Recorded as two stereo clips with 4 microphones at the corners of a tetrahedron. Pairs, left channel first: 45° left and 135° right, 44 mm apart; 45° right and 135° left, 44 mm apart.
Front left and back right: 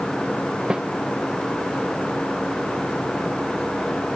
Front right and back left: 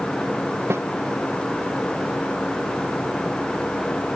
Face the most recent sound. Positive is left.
turn(degrees=155)